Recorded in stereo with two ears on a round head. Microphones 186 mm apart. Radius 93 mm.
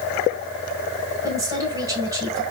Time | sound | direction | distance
1.2 | a woman speaking | 20° right (ahead or behind) | 4 m